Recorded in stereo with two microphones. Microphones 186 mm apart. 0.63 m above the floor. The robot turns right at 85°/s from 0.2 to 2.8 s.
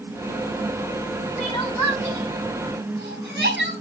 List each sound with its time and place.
1.4 s crying: 40° left (ahead or behind), 6 m; by 3.7 s 75° right (ahead or behind), 6 m